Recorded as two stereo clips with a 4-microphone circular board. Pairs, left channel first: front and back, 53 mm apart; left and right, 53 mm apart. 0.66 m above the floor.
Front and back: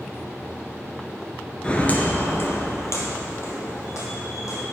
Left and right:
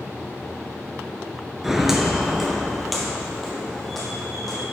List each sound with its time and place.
1.6 s footsteps: 15° right, 0.6 m; by 4.6 s 5° left, 2 m